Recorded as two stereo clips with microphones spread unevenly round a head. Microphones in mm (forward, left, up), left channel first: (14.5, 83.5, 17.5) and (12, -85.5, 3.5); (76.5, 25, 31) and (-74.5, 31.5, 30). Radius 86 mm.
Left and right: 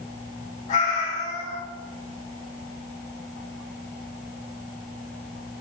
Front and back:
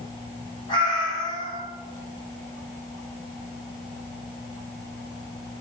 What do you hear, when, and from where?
0.7 s a cat meowing: 50° left, 1.7 m